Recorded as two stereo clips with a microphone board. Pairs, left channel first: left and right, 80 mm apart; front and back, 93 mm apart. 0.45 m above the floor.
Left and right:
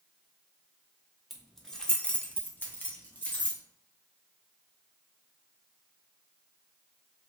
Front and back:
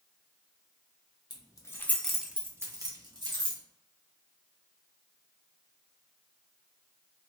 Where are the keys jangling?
Straight ahead, 0.7 m; by 3.6 s 155° left, 1.2 m.